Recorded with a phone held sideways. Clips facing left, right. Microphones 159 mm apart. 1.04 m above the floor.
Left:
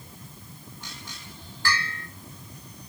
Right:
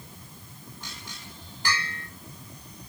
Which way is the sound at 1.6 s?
15° right (ahead or behind).